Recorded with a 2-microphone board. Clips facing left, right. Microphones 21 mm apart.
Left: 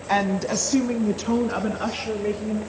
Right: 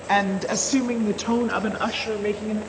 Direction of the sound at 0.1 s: 15° right (ahead or behind).